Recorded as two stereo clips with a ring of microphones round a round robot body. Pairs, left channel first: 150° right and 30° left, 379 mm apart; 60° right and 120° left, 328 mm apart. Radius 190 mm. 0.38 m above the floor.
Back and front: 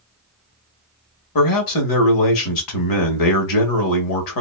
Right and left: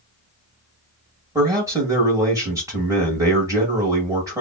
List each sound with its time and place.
1.4 s a man speaking: 160° right, 1.7 m